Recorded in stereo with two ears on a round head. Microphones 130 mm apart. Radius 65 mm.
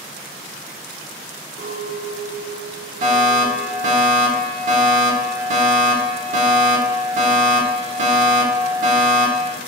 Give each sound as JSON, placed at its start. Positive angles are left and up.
{"t": 1.6, "sound": "a clink", "side_deg": -75, "distance_m": 3.0}
{"t": 3.0, "sound": "a fire alarm", "side_deg": -55, "distance_m": 2.5}